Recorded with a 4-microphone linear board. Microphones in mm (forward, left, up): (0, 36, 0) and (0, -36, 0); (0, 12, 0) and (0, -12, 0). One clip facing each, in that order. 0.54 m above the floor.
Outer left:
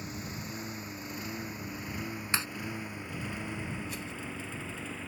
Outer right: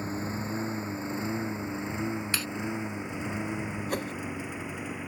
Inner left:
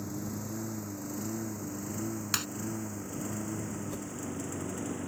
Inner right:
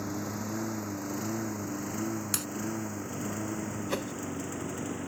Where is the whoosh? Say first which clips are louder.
Outer right 8 dB, inner right 6 dB; 60° right (ahead or behind).